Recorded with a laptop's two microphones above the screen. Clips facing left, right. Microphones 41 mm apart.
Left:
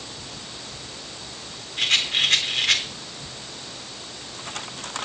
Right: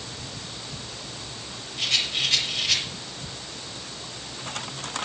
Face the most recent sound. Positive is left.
turn(degrees=60)  # may be behind; listen again after turning